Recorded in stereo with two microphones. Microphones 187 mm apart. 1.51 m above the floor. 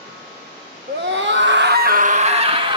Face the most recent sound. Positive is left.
turn(degrees=-25)  # may be behind; listen again after turning